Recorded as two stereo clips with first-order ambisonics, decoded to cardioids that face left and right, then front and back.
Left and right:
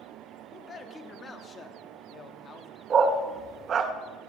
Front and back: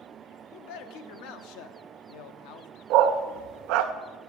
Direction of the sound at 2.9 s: 150° right.